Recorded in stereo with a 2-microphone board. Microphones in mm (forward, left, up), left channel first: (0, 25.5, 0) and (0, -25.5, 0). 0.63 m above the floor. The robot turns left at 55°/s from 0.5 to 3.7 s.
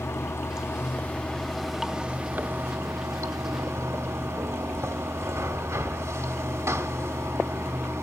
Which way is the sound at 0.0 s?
65° left.